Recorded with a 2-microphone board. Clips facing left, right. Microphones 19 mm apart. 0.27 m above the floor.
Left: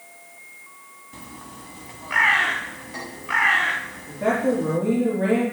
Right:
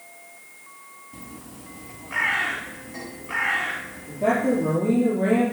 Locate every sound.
1.1 s a bird: 40° left (ahead or behind), 0.6 m
4.1 s a woman speaking: 65° left (ahead or behind), 4.5 m